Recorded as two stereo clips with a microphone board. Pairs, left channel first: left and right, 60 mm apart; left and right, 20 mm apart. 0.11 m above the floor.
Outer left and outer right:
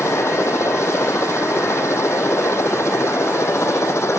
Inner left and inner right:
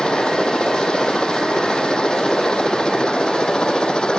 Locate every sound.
0.0 s a helicopter: 50° left (ahead or behind)